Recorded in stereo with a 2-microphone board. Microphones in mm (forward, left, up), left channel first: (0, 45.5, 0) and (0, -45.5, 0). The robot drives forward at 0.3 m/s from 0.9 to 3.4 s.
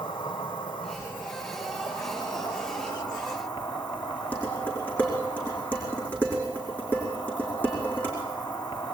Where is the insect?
60° left (ahead or behind), 3.5 m; by 8.9 s 50° left (ahead or behind), 4 m.